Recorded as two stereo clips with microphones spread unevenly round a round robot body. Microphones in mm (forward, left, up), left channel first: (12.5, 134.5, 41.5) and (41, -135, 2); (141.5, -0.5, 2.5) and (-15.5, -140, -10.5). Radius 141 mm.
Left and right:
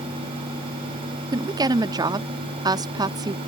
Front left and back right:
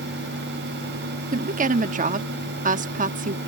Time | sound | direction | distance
1.3 | a woman speaking | 140° right | ?